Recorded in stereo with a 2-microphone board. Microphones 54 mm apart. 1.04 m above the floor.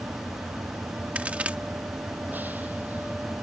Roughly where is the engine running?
Right.